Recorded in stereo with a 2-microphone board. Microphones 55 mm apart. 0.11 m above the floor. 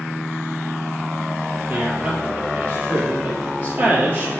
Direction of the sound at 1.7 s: 30° right (ahead or behind).